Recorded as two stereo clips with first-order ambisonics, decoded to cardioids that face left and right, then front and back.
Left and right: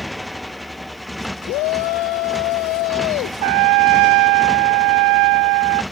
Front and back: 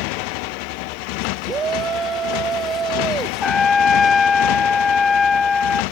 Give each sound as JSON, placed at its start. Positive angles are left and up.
{"t": 0.0, "sound": "a motorcycle", "azimuth_deg": 0}
{"t": 1.5, "sound": "a shout", "azimuth_deg": 115}
{"t": 3.4, "sound": "a trumpet", "azimuth_deg": -75}